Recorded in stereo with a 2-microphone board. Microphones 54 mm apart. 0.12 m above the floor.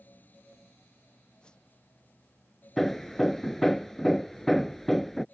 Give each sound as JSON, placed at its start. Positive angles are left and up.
{"t": 1.4, "sound": "a whoosh", "side_deg": 15}
{"t": 2.8, "sound": "hammering", "side_deg": 5}